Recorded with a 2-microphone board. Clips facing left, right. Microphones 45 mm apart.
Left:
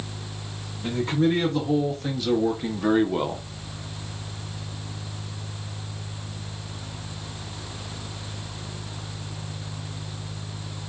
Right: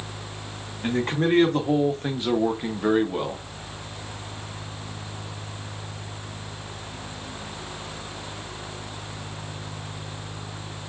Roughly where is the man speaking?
Right.